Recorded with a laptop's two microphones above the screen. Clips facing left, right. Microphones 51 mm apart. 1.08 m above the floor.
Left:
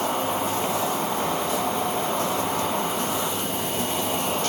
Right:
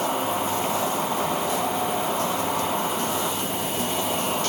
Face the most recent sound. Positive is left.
turn(degrees=-5)  # may be behind; listen again after turning